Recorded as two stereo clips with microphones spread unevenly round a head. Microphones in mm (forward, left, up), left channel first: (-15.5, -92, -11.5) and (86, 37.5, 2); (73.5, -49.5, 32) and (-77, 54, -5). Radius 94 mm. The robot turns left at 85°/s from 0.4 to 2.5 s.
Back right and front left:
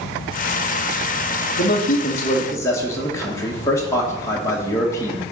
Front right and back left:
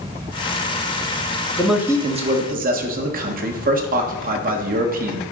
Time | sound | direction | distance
1.6 | a man speaking | 120° right | 1.4 m